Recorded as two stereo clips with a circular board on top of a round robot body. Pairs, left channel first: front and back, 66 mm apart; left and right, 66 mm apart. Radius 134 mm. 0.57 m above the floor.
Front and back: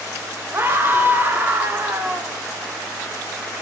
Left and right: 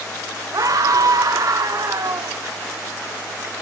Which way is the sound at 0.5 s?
125° right.